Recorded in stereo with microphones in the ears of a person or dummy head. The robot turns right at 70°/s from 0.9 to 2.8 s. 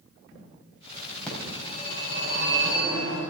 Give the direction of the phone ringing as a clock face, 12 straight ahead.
12 o'clock.